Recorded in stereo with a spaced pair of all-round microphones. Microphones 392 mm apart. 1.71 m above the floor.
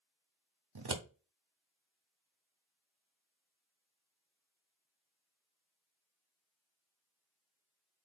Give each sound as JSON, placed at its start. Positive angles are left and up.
{"t": 0.8, "sound": "scissors", "side_deg": -75, "distance_m": 0.8}